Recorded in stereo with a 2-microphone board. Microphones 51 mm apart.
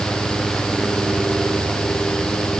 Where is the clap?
I don't hear a clap.